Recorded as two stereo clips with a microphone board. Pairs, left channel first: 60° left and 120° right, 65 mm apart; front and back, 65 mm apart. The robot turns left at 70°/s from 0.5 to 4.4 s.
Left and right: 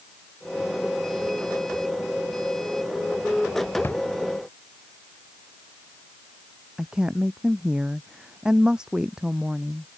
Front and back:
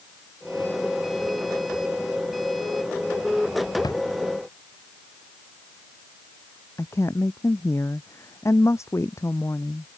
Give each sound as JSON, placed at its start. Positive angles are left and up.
{"t": 3.8, "sound": "a drawer", "azimuth_deg": 5}
{"t": 6.8, "sound": "a woman speaking", "azimuth_deg": -40}